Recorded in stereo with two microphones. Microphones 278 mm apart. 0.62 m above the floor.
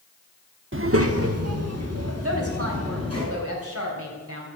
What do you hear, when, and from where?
0.7 s a child speaking: 45° right (ahead or behind), 0.8 m; by 3.2 s 65° right (ahead or behind), 4 m
2.2 s a woman speaking: 55° right (ahead or behind), 3 m